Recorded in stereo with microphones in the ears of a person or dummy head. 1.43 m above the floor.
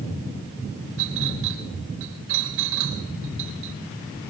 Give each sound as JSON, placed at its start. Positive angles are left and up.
{"t": 1.0, "sound": "a clink", "side_deg": -70, "distance_m": 4.5}